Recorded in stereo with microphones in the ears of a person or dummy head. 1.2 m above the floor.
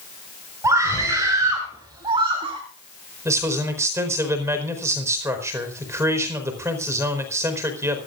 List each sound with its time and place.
0.6 s a scream: 15° right (ahead or behind), 5 m; by 2.6 s 30° right (ahead or behind), 2.5 m
3.2 s a man speaking: 15° right (ahead or behind), 4.5 m